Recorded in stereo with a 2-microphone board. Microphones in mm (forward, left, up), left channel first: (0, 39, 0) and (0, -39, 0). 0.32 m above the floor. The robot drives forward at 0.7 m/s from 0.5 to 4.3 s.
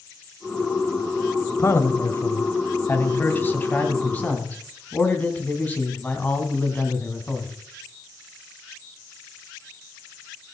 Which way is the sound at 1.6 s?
35° left (ahead or behind).